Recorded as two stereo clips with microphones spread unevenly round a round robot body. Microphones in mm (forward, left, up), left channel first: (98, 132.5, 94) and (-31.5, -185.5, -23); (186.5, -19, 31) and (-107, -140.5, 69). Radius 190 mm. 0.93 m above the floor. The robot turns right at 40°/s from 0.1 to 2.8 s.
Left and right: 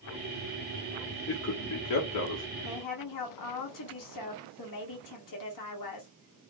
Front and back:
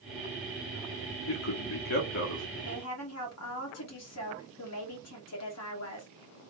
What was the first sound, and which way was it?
A man speaking, 5° right.